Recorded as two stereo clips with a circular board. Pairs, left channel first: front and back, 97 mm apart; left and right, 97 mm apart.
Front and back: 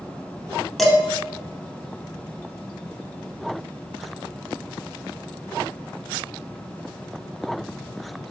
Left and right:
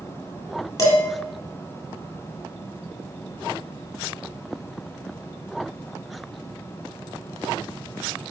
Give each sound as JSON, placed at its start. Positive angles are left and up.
{"t": 0.8, "sound": "dishes clattering", "azimuth_deg": 85, "distance_m": 0.8}